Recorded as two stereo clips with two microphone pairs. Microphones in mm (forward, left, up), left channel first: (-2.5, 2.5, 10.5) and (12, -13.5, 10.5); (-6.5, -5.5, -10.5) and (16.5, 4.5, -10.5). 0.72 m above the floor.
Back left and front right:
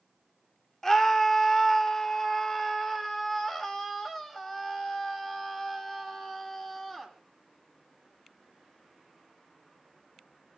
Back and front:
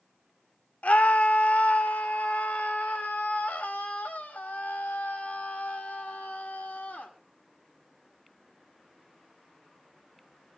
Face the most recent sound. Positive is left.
turn(degrees=-155)